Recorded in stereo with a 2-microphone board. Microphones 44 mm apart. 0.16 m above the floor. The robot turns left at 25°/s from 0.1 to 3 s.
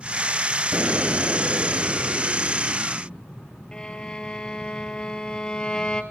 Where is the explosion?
45° right, 1.0 m; by 3.2 s 100° right, 1.0 m.